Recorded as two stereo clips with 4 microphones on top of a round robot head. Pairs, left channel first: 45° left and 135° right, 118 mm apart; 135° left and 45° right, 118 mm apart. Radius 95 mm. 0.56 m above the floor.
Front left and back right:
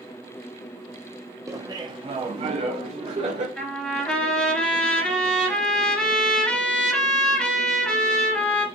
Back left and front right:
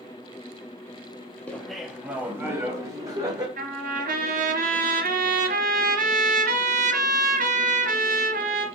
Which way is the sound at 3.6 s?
35° right.